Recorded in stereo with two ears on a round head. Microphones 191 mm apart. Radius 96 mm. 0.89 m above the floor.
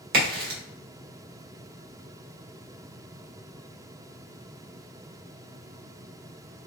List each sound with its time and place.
0.1 s a crack: 45° right (ahead or behind), 1.5 m